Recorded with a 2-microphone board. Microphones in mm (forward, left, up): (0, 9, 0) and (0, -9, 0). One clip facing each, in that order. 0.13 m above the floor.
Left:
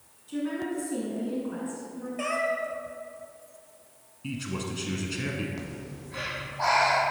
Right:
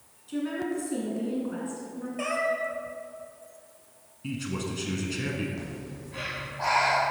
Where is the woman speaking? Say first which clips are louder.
Right 1 dB; 10° right (ahead or behind), 1.3 m.